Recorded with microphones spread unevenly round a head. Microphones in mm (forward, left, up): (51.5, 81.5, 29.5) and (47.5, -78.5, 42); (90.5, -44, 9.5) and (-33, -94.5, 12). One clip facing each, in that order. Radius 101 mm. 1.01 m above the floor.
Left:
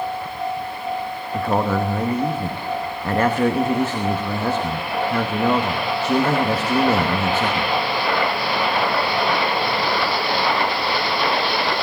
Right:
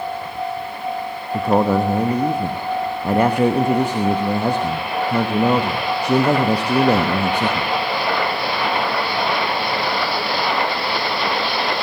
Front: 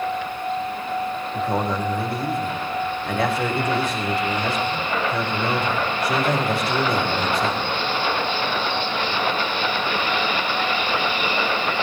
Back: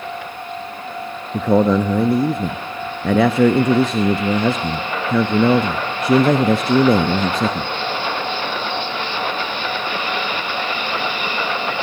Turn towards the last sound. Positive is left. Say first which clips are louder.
# right 4 dB, back 10 dB
turn(degrees=-170)